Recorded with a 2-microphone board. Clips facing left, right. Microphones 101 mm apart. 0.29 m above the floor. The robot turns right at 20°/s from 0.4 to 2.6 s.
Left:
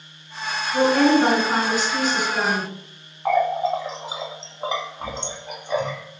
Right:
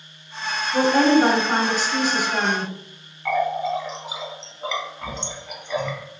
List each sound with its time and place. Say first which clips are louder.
0.7 s a woman speaking: even; 120° right, 1.2 m; by 2.7 s 80° right, 1.2 m
3.2 s a running tap: left 3 dB; 35° left (ahead or behind), 0.7 m